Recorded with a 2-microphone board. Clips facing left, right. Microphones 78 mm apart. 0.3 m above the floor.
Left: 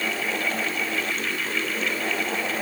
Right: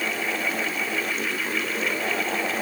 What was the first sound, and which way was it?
Only background noise.